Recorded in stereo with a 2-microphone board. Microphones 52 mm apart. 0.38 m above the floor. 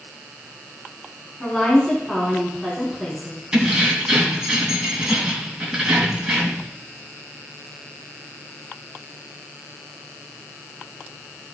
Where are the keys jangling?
10° right (ahead or behind), 2.5 m.